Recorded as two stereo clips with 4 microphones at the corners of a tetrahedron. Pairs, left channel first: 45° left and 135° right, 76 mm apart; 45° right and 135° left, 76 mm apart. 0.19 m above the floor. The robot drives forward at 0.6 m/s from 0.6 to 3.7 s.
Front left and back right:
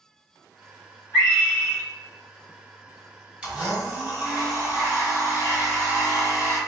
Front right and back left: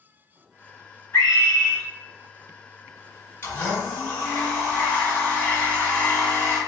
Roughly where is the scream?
Ahead.